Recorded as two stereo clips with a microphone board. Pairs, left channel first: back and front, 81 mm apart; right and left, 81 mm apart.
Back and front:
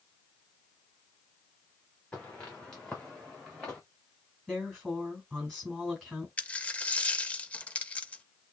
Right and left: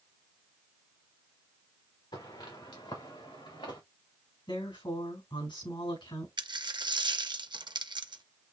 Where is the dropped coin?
110° left, 0.5 m.